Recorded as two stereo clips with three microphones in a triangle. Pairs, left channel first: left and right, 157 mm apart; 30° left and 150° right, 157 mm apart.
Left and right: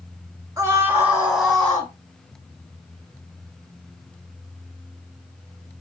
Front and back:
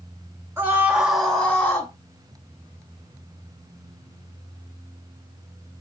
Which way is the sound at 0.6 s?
110° right.